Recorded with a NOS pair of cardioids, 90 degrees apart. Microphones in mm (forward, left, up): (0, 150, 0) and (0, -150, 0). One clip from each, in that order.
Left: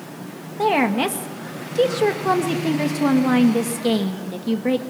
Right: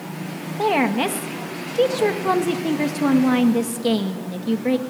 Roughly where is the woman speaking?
Ahead.